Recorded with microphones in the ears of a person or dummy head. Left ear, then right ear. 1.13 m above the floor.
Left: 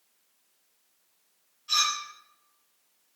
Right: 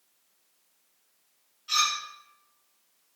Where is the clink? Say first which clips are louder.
Even; 10° right (ahead or behind), 1.0 m.